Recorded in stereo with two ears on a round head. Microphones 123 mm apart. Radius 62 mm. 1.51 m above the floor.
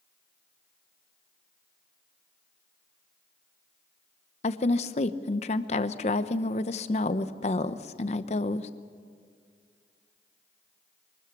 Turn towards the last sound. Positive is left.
turn(degrees=50)  # may be behind; listen again after turning